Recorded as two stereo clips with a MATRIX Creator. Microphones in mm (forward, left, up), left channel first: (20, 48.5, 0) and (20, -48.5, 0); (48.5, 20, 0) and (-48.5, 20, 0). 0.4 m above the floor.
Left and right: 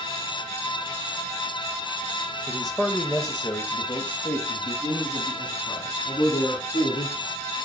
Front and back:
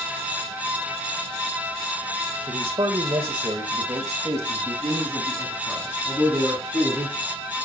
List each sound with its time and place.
2.5 s a man speaking: straight behind, 1.2 m; by 7.4 s 110° left, 4.5 m